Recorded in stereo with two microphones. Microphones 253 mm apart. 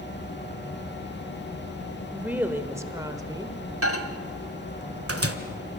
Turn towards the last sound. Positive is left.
turn(degrees=-60)  # may be behind; listen again after turning